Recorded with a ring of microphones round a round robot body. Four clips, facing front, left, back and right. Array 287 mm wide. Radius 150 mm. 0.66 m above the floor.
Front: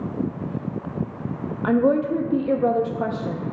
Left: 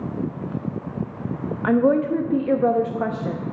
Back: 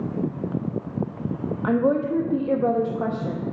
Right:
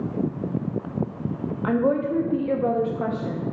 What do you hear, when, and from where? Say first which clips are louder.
1.6 s a woman speaking: left 4 dB, front 2 dB; 70° left, 0.7 m